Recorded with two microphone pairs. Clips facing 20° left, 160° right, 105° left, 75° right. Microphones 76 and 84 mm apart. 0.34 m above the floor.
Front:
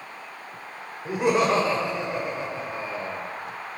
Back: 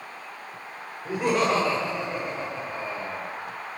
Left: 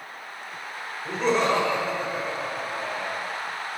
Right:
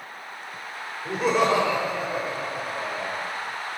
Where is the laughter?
5° right, 0.8 m.